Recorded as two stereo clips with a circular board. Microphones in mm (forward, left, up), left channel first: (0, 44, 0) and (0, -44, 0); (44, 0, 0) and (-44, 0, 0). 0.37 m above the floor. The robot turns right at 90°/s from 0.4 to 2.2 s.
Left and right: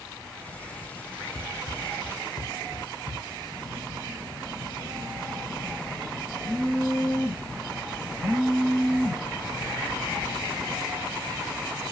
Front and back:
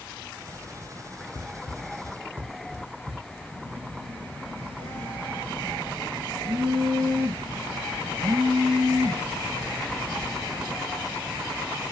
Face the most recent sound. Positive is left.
turn(degrees=160)